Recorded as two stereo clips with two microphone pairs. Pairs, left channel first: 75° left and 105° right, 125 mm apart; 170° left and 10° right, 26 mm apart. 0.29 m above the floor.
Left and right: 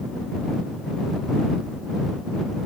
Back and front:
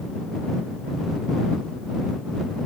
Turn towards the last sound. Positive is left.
No sound to turn to.